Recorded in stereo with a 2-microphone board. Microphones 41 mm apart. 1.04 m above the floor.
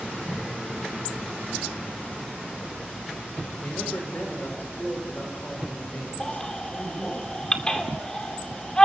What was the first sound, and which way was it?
A man speaking, 50° left (ahead or behind).